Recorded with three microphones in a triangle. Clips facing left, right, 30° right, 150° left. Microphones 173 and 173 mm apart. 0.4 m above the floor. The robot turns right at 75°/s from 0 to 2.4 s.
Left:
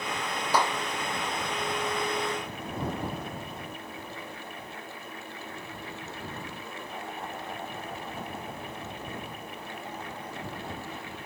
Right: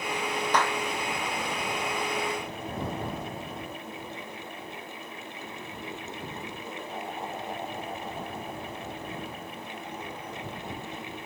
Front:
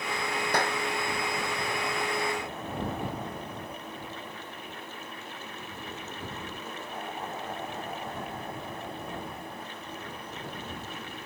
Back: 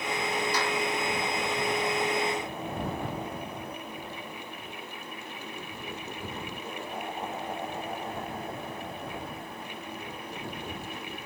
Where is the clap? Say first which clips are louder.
Left 1 dB, front 1 dB; 10° left; by 0.8 s 25° left.